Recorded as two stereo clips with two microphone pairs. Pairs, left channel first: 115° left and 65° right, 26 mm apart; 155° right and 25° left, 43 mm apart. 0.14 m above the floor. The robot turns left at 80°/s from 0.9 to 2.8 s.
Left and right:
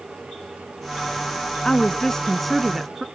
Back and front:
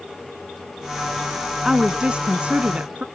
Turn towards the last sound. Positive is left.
turn(degrees=0)